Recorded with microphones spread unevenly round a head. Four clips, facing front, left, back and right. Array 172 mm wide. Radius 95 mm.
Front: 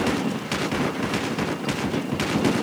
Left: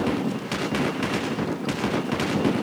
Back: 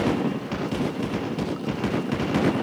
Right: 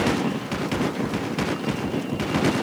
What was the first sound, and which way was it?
Only background noise.